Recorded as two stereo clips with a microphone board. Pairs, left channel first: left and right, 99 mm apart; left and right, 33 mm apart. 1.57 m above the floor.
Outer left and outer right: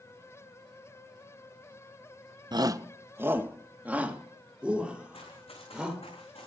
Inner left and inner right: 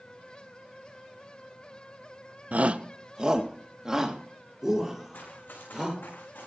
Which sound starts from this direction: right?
A shout, at 2.5 s.